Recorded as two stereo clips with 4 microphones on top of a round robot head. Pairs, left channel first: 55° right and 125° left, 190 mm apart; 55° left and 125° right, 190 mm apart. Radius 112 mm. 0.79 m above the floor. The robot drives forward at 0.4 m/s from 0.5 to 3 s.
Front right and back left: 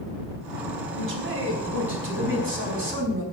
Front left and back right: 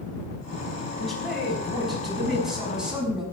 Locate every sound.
0.9 s a man speaking: 145° left, 5.5 m; by 3.2 s 150° left, 6 m